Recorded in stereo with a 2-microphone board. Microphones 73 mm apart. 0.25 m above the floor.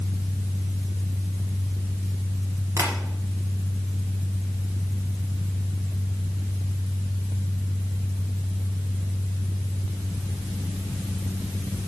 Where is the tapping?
40° right (ahead or behind), 2 m.